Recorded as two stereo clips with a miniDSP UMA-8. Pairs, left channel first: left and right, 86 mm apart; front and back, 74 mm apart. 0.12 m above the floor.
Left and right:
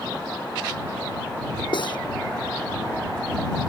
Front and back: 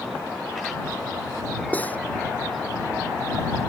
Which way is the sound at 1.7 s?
70° left.